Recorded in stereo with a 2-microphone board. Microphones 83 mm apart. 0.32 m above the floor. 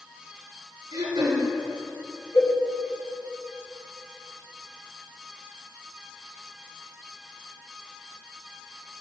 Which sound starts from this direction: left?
A cowbell, at 2.3 s.